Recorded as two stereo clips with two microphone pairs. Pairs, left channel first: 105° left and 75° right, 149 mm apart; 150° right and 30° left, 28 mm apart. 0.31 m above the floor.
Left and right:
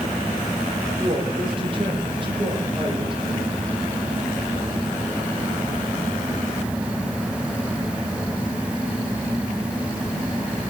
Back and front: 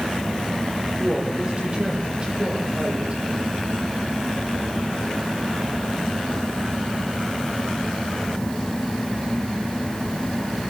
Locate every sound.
1.0 s a woman speaking: 25° right, 9.5 m; by 3.2 s 20° right, 12.5 m